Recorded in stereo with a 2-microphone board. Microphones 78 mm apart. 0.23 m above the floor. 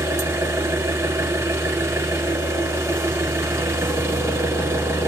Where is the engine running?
35° right (ahead or behind), 1.2 m.